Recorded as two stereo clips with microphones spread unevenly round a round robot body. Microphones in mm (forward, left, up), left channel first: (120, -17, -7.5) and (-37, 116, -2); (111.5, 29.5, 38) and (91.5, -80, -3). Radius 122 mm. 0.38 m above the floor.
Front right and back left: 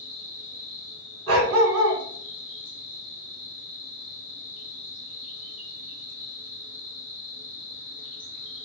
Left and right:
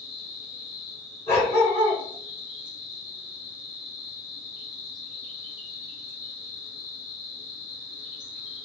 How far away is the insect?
About 1.1 m.